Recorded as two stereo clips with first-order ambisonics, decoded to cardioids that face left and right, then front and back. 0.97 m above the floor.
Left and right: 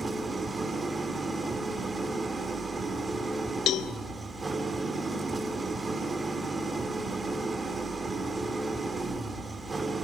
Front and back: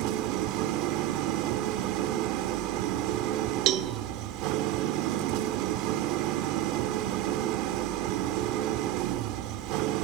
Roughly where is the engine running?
Behind.